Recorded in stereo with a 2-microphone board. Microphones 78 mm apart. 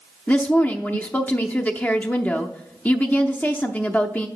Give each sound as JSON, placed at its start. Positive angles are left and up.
{"t": 0.3, "sound": "a woman speaking", "side_deg": 25, "distance_m": 0.6}